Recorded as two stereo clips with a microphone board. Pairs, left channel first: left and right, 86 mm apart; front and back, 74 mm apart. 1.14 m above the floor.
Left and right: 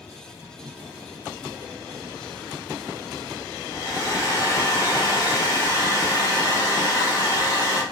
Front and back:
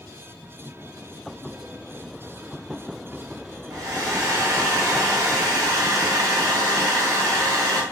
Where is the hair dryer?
145° left, 1.1 m.